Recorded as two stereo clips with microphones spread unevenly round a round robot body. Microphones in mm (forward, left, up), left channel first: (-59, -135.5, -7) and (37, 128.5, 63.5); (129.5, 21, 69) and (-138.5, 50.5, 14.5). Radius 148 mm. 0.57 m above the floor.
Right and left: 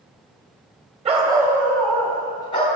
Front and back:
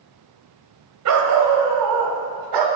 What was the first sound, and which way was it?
A dog barking, 140° left.